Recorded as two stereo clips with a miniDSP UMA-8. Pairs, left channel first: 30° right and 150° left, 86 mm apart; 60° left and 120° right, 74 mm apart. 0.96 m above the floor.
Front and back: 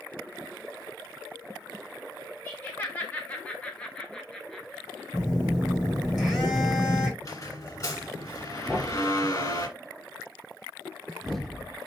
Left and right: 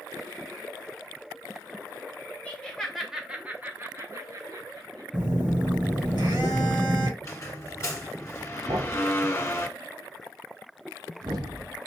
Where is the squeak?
15° left, 1.7 m.